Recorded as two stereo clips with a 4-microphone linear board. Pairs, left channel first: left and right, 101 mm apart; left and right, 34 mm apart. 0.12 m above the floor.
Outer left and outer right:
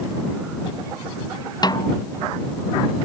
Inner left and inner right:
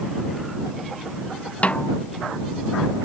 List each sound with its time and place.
1.6 s a snare drum: 40° left (ahead or behind)